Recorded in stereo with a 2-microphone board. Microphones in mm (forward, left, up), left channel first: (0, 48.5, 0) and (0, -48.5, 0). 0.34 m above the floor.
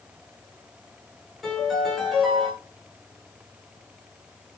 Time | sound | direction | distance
1.4 | a piano | centre (ahead or behind) | 5.5 m